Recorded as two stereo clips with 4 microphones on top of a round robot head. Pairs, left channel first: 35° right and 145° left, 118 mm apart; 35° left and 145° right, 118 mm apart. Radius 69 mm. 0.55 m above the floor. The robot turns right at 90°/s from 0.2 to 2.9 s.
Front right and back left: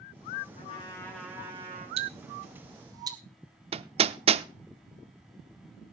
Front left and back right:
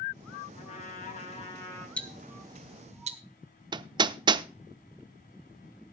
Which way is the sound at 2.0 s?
115° left.